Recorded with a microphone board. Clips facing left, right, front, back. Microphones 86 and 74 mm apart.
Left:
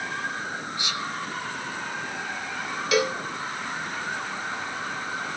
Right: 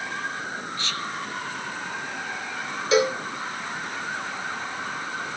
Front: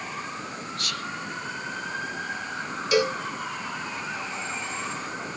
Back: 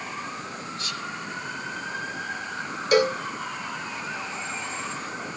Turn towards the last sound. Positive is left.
turn(degrees=-150)